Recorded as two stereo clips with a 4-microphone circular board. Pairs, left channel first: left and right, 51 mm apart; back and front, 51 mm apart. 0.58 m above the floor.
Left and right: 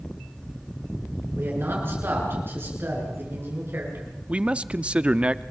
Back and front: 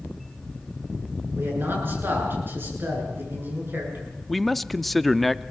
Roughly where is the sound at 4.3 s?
Right.